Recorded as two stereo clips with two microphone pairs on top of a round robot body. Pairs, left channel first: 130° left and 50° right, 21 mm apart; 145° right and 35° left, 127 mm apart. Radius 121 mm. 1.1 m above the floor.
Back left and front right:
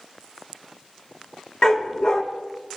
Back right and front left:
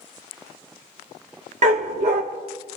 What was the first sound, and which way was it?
A dog barking, 75° left.